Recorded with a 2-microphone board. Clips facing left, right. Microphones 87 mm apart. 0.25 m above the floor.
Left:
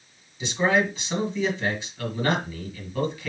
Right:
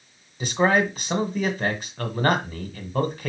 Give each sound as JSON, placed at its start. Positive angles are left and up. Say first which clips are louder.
{"t": 0.4, "sound": "a man speaking", "louder": "right 2 dB", "side_deg": -50, "distance_m": 1.8}